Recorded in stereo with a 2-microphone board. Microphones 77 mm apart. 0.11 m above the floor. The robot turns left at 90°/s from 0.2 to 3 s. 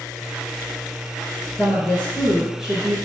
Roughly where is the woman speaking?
Left.